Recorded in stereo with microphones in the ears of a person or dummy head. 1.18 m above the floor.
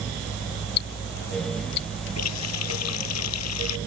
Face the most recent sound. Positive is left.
turn(degrees=90)